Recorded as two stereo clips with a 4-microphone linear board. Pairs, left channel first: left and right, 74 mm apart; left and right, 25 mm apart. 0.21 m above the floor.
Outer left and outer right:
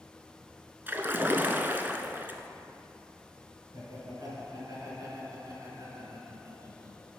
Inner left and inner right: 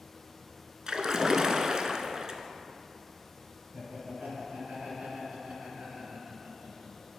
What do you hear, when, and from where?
0.9 s a splash: 30° right (ahead or behind), 0.5 m
3.7 s laughter: 60° right (ahead or behind), 3 m